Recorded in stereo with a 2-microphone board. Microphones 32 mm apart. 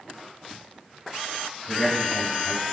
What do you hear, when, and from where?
1.7 s a man speaking: centre (ahead or behind), 1.4 m